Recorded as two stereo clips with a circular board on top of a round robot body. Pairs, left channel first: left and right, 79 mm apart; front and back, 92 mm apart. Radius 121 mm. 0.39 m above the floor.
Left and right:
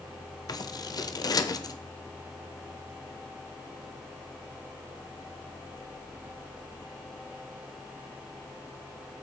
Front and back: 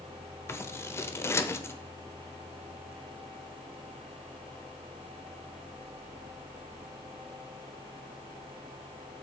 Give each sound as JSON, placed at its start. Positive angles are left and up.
{"t": 0.5, "sound": "scissors", "azimuth_deg": 60, "distance_m": 1.0}